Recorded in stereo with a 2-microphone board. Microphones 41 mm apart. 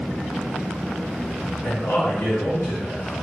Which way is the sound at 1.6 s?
75° left (ahead or behind).